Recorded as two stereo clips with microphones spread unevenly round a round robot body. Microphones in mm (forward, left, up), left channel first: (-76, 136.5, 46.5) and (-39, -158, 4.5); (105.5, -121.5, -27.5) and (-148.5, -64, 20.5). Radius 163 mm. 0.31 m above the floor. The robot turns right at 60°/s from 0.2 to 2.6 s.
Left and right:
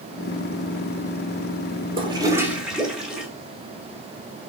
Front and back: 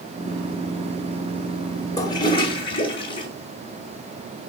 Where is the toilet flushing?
50° right, 1.5 m; by 3.3 s 15° right, 1.5 m.